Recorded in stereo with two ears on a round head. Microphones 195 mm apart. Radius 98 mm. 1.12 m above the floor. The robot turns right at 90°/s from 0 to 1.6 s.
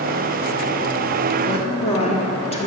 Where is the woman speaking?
20° left (ahead or behind), 0.8 m; by 2.7 s 30° left (ahead or behind), 0.8 m.